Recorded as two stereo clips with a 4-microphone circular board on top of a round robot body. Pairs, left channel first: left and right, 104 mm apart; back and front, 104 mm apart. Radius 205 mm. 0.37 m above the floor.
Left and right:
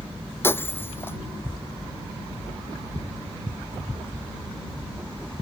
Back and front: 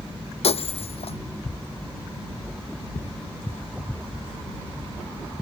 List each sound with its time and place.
0.4 s breaking glass: 160° left